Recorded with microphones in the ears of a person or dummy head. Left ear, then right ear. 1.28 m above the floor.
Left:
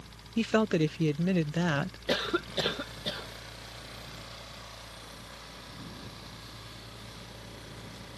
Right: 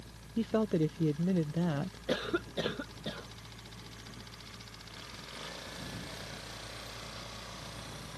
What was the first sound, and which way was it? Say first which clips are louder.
A woman speaking: left 4 dB; 50° left (ahead or behind).